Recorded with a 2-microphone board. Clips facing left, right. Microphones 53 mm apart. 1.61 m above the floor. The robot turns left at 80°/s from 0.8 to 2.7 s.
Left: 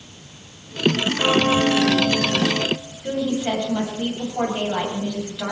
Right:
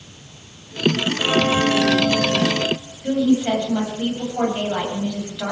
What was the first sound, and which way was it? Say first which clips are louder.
A bell: left 1 dB; 35° left.